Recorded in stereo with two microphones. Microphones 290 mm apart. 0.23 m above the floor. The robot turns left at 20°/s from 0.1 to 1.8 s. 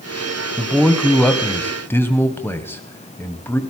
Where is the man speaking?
Centre (ahead or behind), 1.1 m; by 3.6 s 10° left (ahead or behind), 1.1 m.